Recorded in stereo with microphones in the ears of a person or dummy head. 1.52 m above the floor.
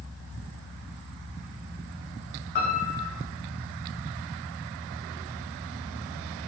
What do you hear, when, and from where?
2.5 s a piano: 50° left (ahead or behind), 1.0 m